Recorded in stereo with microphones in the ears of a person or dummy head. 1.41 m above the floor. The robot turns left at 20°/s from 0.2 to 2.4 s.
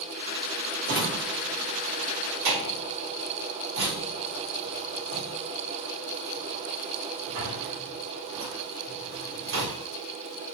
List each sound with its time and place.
0.8 s a drawer: 50° right (ahead or behind), 1.7 m; by 9.9 s 75° right (ahead or behind), 1.7 m